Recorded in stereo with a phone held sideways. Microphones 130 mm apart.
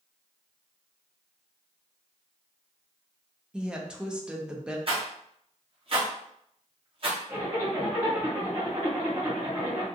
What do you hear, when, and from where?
3.5 s a woman speaking: 5° right (ahead or behind), 0.5 m
4.9 s a rattle: 45° right (ahead or behind), 0.9 m
7.3 s a zipper: 25° right (ahead or behind), 1.6 m